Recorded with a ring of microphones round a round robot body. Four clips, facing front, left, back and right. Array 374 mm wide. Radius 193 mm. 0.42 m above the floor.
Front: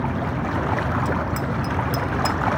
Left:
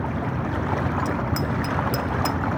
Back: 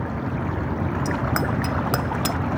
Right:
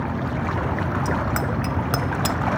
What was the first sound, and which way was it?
A bicycle bell, 155° right.